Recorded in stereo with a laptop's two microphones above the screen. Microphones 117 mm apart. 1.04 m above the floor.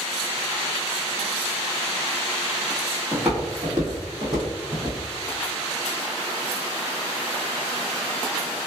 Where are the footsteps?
10° right (ahead or behind), 1.4 m; by 5.0 s 50° right (ahead or behind), 1.7 m.